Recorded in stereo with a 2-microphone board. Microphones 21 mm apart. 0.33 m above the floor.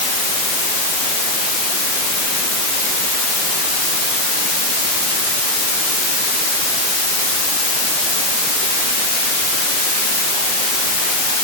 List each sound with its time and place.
Only background noise.